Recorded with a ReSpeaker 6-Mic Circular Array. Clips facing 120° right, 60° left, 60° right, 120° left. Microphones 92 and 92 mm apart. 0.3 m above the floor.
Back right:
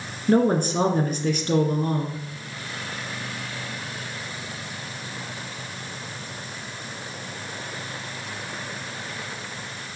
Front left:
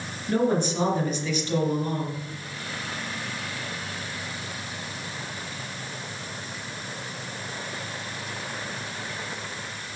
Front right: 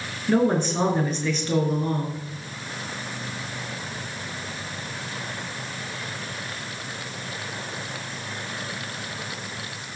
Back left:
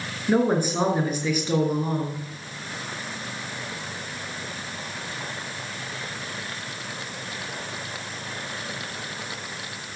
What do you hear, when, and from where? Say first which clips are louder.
0.3 s a woman speaking: back right 4 dB, even; 160° right, 3.5 m